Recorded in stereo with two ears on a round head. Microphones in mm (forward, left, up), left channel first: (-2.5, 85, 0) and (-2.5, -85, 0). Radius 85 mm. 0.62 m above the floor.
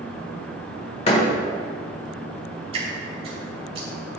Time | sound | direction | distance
1.1 | a door slam | 35° left (ahead or behind) | 1.3 m
2.7 | dripping | 30° right (ahead or behind) | 2 m